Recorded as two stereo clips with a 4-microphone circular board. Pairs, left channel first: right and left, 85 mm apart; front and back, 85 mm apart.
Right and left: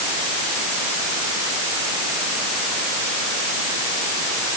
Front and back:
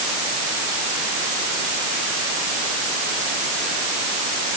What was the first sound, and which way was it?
Only background noise.